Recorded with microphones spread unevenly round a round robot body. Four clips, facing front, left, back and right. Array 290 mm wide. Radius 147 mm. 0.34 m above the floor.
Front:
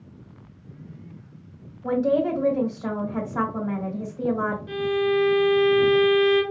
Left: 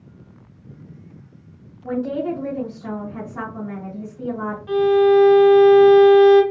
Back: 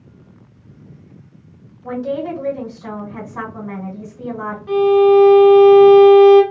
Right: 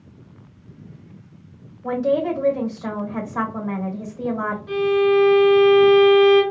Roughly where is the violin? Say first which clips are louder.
Left 4 dB, back 15 dB; behind.